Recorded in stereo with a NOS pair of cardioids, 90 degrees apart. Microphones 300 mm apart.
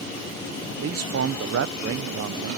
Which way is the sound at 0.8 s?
50° right.